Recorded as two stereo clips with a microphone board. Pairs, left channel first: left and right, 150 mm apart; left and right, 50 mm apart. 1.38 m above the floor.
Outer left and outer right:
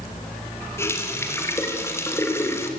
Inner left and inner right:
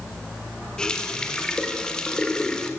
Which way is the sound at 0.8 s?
15° left (ahead or behind).